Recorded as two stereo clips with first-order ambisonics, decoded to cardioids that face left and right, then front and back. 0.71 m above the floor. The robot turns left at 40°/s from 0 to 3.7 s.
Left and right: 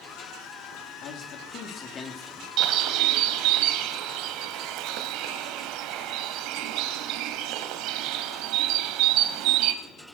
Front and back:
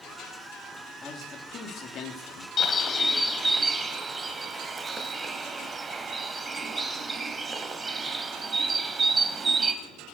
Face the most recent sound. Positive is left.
turn(degrees=-105)